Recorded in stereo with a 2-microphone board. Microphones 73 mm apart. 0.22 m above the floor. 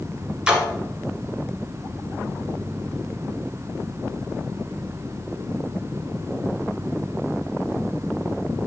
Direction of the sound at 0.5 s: 10° right (ahead or behind).